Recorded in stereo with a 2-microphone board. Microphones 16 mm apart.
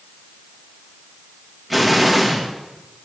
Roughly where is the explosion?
Centre.